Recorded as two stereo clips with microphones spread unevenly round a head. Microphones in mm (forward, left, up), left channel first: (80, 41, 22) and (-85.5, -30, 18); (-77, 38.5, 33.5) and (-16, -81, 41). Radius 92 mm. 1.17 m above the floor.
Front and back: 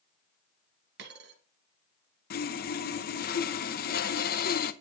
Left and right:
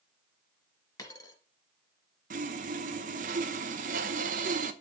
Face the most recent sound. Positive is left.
turn(degrees=-20)